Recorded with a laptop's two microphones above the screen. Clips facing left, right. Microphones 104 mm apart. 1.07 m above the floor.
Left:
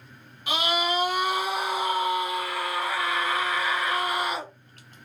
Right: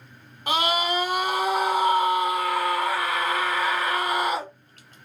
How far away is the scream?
About 0.7 m.